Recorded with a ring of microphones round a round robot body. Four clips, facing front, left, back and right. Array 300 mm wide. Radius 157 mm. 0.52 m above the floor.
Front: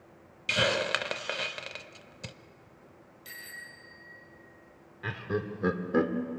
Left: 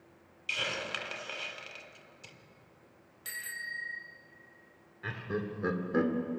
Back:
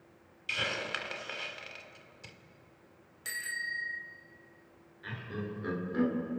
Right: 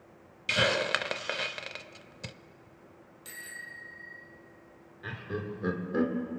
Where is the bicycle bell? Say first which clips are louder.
Left 4 dB, back 9 dB; 155° left, 2 m.